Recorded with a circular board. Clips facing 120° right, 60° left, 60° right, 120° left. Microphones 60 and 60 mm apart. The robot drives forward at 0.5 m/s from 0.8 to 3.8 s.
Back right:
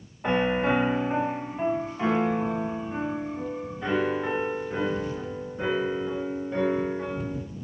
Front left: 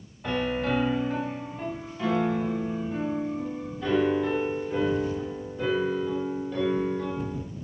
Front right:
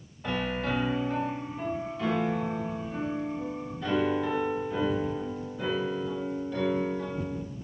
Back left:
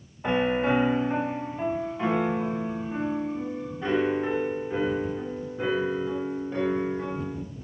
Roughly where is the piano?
Behind.